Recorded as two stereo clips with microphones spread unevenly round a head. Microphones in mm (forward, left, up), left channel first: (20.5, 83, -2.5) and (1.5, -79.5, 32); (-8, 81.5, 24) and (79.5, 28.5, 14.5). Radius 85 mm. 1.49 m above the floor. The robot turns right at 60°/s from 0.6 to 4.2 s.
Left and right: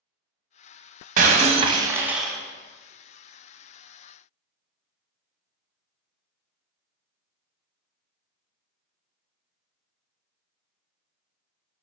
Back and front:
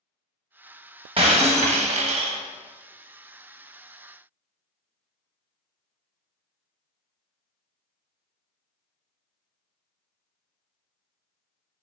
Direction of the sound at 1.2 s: 80° right.